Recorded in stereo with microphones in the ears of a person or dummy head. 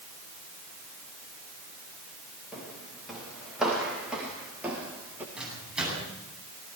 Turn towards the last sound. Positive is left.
turn(degrees=-5)  # may be behind; listen again after turning